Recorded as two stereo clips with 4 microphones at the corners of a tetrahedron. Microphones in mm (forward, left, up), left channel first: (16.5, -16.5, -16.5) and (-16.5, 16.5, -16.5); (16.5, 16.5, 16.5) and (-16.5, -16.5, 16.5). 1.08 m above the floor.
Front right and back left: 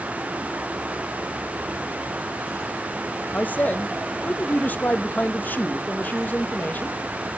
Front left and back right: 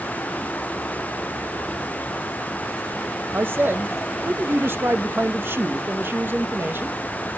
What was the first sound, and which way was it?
A man speaking, 95° right.